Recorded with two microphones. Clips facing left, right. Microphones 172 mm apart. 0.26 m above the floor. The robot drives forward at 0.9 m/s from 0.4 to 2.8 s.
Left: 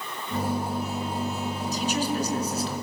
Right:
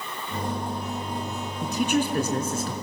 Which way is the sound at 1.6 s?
60° right (ahead or behind).